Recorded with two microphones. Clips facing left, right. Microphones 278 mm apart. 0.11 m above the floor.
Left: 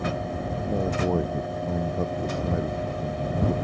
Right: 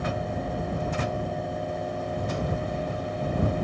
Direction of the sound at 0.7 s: 75° left (ahead or behind).